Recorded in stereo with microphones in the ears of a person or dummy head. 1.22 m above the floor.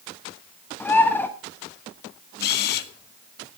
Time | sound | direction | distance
0.8 | a bird | 5° left (ahead or behind) | 1.3 m
2.4 | a camera shutter | 60° left (ahead or behind) | 1.1 m